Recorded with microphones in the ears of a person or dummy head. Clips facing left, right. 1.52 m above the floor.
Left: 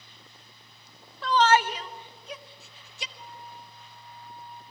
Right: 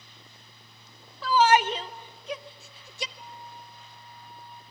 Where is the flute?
10° right (ahead or behind), 3.5 m.